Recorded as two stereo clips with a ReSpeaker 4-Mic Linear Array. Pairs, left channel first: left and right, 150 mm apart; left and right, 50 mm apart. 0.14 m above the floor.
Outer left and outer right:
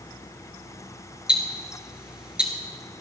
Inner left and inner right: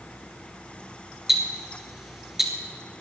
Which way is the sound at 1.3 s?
5° right (ahead or behind).